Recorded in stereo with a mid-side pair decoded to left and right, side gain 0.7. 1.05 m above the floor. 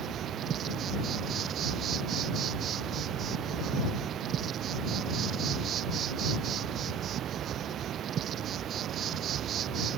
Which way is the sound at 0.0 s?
40° right.